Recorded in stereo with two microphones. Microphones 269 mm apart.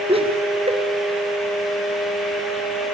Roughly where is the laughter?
Right.